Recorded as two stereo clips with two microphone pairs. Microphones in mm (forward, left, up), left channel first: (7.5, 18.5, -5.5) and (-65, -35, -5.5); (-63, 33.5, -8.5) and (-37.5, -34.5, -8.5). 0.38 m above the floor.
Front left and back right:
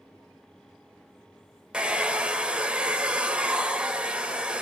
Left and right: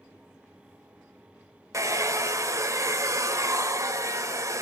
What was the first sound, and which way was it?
A hair dryer, 70° right.